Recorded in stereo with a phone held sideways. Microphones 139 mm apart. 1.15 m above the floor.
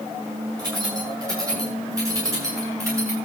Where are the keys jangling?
30° right (ahead or behind), 10 m; by 3.2 s 20° right (ahead or behind), 7.5 m.